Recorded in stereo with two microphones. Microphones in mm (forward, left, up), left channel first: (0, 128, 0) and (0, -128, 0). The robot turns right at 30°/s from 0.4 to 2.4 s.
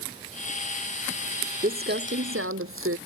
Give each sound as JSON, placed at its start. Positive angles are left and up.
{"t": 1.6, "sound": "crumpling", "side_deg": -35}